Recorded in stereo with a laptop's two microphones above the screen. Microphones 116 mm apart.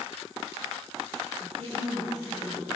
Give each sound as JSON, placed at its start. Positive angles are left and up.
{"t": 1.4, "sound": "a woman speaking", "side_deg": -65, "distance_m": 9.0}